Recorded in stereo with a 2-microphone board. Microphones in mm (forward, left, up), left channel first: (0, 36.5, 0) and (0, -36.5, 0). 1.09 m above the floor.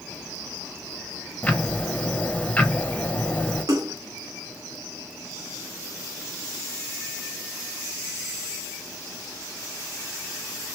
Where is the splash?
55° right (ahead or behind), 1.0 m.